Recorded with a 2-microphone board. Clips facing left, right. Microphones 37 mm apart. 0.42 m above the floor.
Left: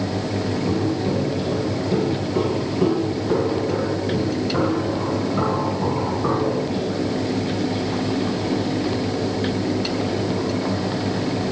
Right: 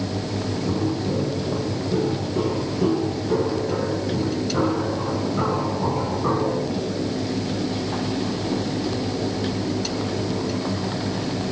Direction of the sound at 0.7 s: 40° left (ahead or behind).